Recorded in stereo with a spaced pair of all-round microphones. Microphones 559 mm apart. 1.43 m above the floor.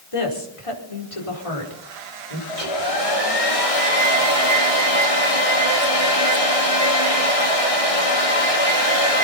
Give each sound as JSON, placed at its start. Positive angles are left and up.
{"t": 0.1, "sound": "a woman speaking", "side_deg": 65, "distance_m": 5.0}
{"t": 2.5, "sound": "a hair dryer", "side_deg": 75, "distance_m": 3.5}